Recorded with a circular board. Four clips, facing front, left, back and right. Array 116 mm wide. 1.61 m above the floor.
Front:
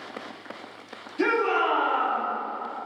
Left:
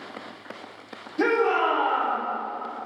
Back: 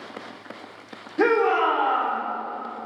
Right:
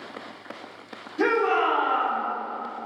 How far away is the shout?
About 2 m.